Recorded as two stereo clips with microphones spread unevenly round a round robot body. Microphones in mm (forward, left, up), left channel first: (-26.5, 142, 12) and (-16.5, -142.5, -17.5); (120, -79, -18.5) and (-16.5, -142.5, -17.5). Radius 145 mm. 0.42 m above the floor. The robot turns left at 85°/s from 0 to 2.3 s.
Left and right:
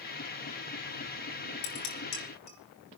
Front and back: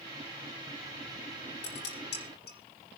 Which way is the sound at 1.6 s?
80° left.